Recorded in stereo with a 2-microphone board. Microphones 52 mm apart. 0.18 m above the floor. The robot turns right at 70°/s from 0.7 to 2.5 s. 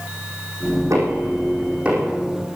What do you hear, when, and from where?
0.9 s knocking: 85° right, 5.5 m; by 2.1 s 5° right (ahead or behind), 5.5 m